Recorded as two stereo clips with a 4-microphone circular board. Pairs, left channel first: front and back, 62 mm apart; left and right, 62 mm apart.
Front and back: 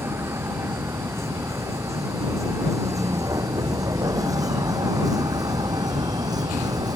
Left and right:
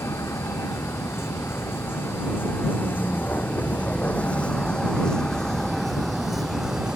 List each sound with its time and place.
0.0 s a vehicle: 135° left; by 7.0 s 170° right